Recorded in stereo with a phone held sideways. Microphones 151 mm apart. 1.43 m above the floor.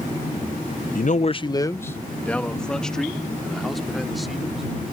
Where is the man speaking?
65° left (ahead or behind); by 4.6 s centre (ahead or behind).